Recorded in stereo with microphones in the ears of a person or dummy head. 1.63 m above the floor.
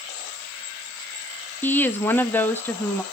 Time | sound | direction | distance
1.6 | a woman speaking | 10° left (ahead or behind) | 0.9 m